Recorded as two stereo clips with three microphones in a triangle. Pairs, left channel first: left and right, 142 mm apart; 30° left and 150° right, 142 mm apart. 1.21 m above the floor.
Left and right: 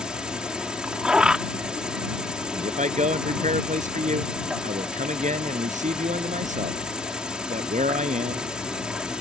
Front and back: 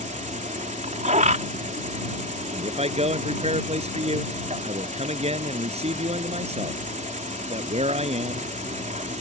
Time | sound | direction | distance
0.0 | an insect | 175° right | ?
2.5 | a man speaking | 110° right | ?